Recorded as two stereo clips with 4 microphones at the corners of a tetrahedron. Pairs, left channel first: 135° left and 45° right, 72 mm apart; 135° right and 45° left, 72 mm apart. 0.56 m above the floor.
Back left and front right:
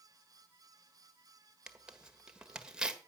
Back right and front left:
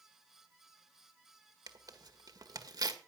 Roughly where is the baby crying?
No baby crying in this recording.